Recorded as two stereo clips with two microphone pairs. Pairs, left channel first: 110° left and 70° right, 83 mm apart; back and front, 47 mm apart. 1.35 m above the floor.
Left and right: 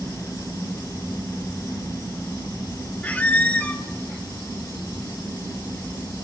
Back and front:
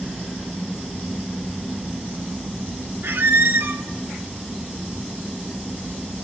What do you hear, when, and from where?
3.0 s a squeak: 35° left, 0.5 m